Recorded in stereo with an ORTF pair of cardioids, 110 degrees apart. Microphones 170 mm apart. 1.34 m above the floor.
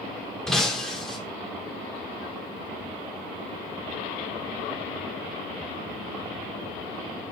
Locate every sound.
0.5 s breaking glass: 5° left, 2.5 m